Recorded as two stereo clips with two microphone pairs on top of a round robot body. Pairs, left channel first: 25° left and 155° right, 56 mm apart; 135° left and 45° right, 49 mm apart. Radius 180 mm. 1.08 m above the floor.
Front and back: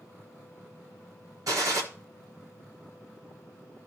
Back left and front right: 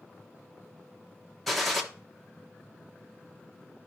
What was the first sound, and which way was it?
A gunshot, 145° right.